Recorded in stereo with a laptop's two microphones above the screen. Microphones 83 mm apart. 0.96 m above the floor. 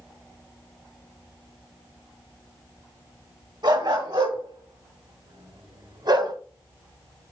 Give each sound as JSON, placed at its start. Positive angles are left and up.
{"t": 3.6, "sound": "a dog barking", "side_deg": -65, "distance_m": 2.5}